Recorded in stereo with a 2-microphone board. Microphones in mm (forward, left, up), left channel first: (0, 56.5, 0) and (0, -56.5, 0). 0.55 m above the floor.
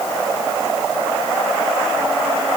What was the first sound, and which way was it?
Only background noise.